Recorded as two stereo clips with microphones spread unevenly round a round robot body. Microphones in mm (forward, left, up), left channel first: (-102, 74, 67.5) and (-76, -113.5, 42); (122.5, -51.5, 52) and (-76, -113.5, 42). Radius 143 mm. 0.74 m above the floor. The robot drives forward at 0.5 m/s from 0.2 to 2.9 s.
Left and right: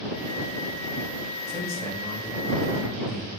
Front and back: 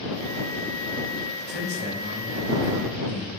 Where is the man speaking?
155° left, 5.5 m.